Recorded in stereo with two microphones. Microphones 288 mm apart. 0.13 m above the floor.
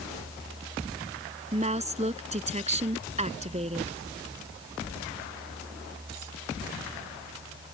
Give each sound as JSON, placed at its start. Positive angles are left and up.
{"t": 1.5, "sound": "a woman speaking", "side_deg": -25}